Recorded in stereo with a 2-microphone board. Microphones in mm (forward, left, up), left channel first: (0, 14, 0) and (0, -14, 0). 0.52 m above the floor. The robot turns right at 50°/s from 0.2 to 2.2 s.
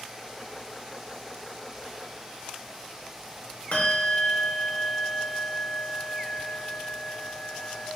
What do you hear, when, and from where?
3.7 s a bell: 60° left (ahead or behind), 1.0 m